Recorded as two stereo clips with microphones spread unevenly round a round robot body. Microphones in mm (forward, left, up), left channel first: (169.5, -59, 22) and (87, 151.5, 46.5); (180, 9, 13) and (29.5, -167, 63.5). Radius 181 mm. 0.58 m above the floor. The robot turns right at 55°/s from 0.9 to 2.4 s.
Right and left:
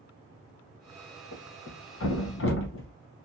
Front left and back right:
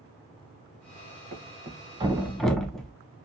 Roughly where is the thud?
Right.